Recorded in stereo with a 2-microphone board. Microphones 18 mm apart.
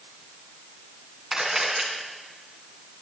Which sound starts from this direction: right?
A camera shutter, at 1.3 s.